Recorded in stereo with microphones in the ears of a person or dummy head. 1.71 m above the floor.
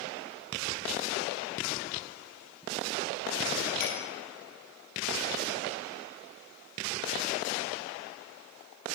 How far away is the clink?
About 8.5 m.